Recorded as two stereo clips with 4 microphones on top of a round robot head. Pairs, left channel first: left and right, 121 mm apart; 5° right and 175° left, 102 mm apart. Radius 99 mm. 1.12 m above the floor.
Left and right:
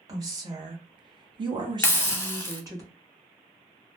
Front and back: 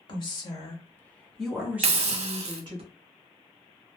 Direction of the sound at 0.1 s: 30° right.